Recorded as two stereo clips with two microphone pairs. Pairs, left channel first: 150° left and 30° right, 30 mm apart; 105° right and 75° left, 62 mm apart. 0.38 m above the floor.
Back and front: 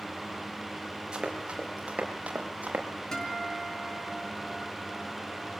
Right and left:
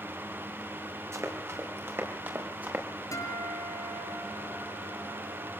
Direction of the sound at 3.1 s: 140° right.